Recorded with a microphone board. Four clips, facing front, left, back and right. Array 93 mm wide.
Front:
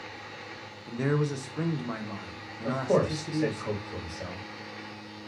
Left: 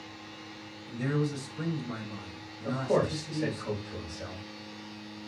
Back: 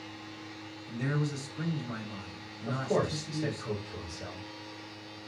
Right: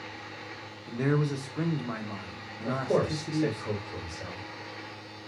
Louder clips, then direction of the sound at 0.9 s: Right 3 dB, front 5 dB; 40° right.